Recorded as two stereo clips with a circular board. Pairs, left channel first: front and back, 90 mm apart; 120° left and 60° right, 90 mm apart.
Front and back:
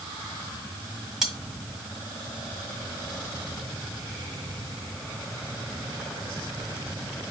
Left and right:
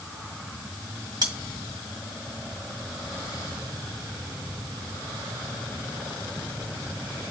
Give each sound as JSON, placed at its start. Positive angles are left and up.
{"t": 1.2, "sound": "cutlery clinking", "azimuth_deg": -95, "distance_m": 1.5}